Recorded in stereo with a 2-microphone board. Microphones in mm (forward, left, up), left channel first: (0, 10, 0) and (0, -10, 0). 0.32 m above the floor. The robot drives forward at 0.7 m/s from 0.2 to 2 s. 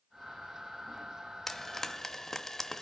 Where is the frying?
15° left (ahead or behind), 1.0 m.